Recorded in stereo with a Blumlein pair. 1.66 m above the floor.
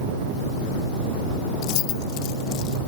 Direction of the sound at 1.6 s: 40° left.